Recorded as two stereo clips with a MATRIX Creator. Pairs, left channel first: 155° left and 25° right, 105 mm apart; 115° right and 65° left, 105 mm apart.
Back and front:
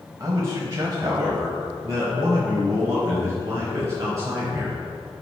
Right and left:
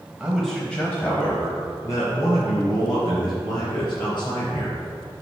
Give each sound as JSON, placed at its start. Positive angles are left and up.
{"t": 0.2, "sound": "a man speaking", "azimuth_deg": -10, "distance_m": 1.1}